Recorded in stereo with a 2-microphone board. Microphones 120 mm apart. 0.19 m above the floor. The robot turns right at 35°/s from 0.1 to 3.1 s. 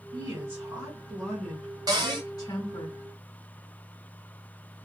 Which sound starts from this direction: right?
A cupboard door, at 1.9 s.